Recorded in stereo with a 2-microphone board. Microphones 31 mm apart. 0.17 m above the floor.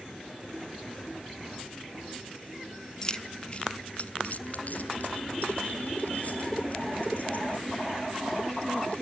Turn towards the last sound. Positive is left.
turn(degrees=45)  # may be behind; listen again after turning